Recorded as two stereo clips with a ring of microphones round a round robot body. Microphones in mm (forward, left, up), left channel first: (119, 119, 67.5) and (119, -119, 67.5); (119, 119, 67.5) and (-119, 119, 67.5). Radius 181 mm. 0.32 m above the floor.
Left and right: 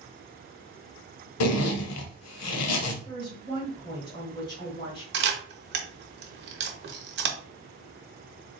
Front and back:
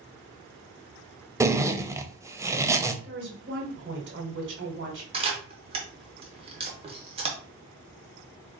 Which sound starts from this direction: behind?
A woman speaking, at 3.0 s.